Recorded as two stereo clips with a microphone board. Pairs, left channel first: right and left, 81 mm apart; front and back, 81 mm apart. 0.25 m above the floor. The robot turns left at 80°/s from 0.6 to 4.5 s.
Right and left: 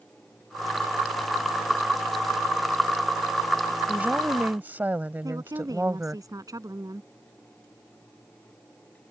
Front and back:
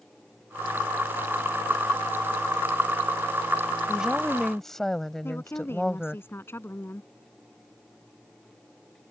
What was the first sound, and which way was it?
A woman speaking, 125° left.